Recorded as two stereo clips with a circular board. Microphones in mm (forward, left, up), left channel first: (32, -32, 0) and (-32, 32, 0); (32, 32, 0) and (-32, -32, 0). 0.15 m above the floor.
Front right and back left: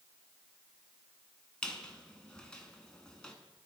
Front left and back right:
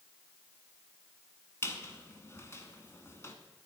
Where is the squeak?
25° left, 0.8 m.